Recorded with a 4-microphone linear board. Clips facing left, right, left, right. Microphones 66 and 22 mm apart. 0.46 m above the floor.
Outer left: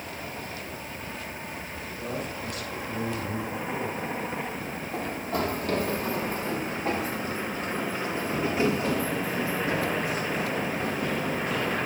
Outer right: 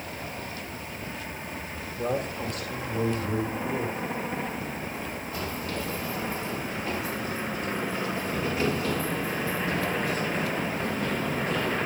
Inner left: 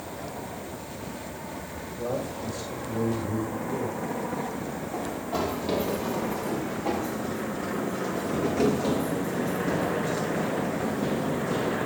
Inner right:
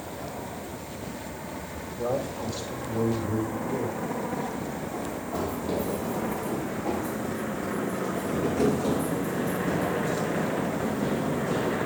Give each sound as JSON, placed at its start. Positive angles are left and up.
{"t": 2.0, "sound": "a man speaking", "side_deg": -50, "distance_m": 3.0}
{"t": 4.9, "sound": "running footsteps", "side_deg": 65, "distance_m": 4.0}